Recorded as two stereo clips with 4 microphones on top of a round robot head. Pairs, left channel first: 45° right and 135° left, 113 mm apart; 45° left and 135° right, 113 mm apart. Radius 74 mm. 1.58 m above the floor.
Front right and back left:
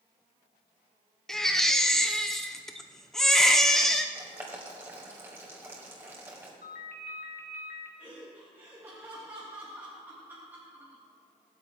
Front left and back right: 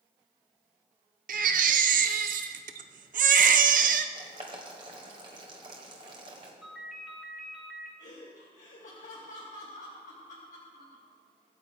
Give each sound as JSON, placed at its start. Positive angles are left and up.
{"t": 1.3, "sound": "a baby crying", "azimuth_deg": -135, "distance_m": 0.5}
{"t": 4.2, "sound": "boiling", "azimuth_deg": -165, "distance_m": 1.6}
{"t": 6.6, "sound": "a ringtone", "azimuth_deg": -45, "distance_m": 1.6}
{"t": 8.0, "sound": "laughter", "azimuth_deg": 60, "distance_m": 1.7}